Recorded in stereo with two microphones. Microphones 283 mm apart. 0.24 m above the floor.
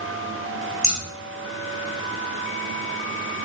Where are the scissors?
60° left (ahead or behind), 4 m.